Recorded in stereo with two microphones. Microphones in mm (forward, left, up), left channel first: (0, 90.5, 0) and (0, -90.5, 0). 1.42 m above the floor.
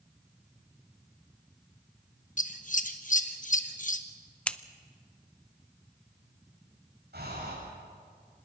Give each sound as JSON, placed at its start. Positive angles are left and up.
{"t": 2.4, "sound": "scissors", "side_deg": 50, "distance_m": 1.1}
{"t": 4.5, "sound": "scissors", "side_deg": 5, "distance_m": 0.6}
{"t": 7.1, "sound": "breathing", "side_deg": -75, "distance_m": 8.0}